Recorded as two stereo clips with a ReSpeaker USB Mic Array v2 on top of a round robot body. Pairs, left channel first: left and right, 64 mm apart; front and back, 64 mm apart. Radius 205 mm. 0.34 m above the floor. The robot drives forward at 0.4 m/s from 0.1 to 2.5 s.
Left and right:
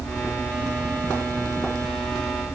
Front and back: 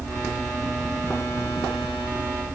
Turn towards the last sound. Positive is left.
No sound to turn to.